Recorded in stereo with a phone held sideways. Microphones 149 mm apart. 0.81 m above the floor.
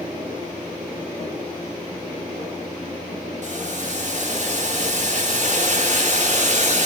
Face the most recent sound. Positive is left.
turn(degrees=-55)  # may be behind; listen again after turning